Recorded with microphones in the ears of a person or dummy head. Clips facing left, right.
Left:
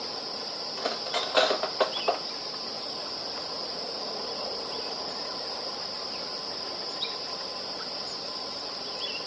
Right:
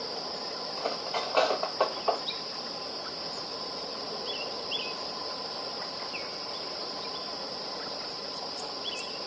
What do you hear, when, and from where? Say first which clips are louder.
0.8 s cutlery clinking: left 1 dB; 20° left (ahead or behind), 1.2 m